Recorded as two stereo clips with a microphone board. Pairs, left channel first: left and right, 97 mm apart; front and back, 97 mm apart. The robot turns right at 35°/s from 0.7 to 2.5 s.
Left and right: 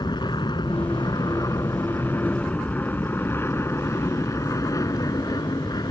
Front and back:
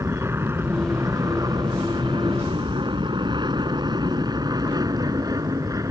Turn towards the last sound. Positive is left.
turn(degrees=130)